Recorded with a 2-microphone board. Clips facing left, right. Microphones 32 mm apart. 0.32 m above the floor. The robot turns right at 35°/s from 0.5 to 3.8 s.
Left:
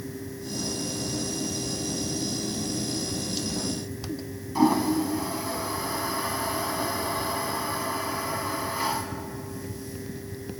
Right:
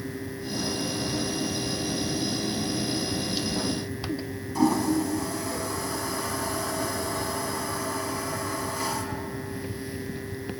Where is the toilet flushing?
20° left (ahead or behind), 0.7 m.